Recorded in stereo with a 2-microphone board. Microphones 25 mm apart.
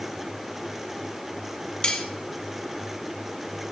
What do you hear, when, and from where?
1.8 s cutlery clinking: 40° left (ahead or behind), 1.6 m